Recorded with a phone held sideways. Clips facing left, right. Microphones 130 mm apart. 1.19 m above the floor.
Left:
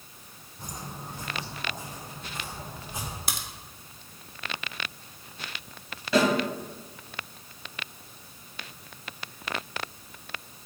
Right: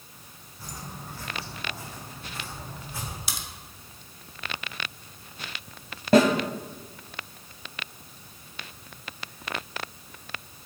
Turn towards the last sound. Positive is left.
turn(degrees=-50)  # may be behind; listen again after turning